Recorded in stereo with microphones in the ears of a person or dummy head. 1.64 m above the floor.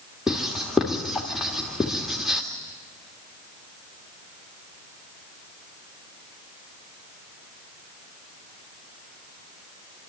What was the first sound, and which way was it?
Writing, centre (ahead or behind).